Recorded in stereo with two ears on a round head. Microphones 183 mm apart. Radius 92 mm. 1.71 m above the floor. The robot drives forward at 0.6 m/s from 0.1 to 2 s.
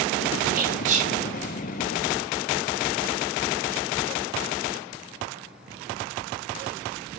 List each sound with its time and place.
0.6 s whispering: 45° right (ahead or behind), 0.8 m; by 1.1 s 35° right (ahead or behind), 1.0 m